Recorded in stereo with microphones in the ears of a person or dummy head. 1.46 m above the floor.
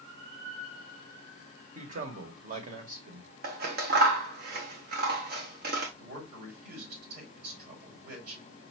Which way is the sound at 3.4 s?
55° right (ahead or behind).